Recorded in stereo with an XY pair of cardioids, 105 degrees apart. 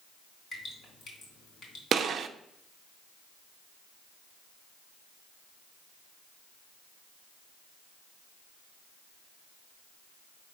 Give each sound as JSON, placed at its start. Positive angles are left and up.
{"t": 0.5, "sound": "dripping", "azimuth_deg": 45, "distance_m": 3.0}
{"t": 1.9, "sound": "a gunshot", "azimuth_deg": -55, "distance_m": 0.6}